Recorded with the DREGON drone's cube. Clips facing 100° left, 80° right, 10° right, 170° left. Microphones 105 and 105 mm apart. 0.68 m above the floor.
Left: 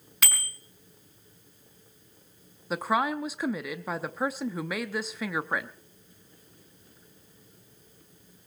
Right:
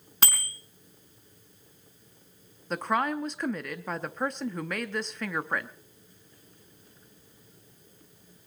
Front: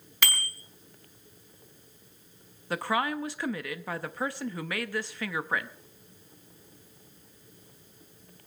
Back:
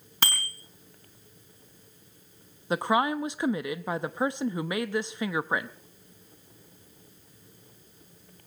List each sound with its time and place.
0.2 s a bicycle bell: 135° right, 4.5 m
2.7 s a woman speaking: 175° left, 0.7 m